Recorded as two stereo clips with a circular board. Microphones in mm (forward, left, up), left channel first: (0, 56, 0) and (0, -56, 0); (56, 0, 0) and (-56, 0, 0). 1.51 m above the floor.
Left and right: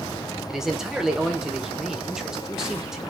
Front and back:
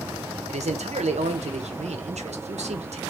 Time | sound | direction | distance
0.5 | a man speaking | 175° right | 0.7 m